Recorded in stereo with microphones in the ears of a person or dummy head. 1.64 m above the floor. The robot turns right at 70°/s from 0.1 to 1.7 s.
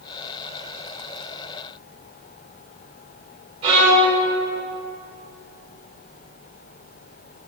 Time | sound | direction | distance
3.6 | a violin | 35° right (ahead or behind) | 1.8 m